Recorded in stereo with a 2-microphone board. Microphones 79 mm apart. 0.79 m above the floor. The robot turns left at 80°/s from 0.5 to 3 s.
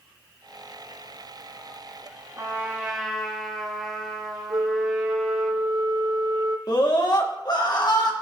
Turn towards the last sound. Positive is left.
turn(degrees=60)  # may be behind; listen again after turning